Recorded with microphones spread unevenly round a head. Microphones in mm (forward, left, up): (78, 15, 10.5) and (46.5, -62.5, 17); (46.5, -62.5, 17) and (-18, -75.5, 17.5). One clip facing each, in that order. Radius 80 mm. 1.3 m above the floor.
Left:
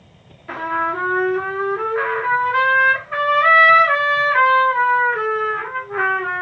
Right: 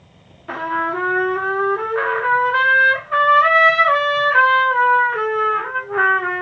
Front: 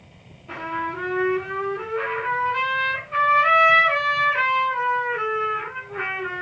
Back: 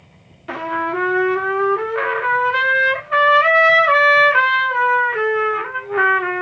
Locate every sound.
0.5 s a trumpet: straight behind, 1.7 m